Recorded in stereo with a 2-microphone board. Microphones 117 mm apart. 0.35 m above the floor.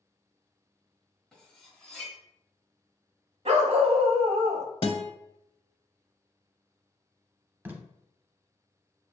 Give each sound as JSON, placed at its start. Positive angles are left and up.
{"t": 1.3, "sound": "cutlery clinking", "side_deg": 5, "distance_m": 1.0}
{"t": 3.5, "sound": "a dog barking", "side_deg": -65, "distance_m": 0.6}
{"t": 4.8, "sound": "a guitar", "side_deg": 50, "distance_m": 0.5}
{"t": 7.7, "sound": "tape being pulled", "side_deg": -15, "distance_m": 0.6}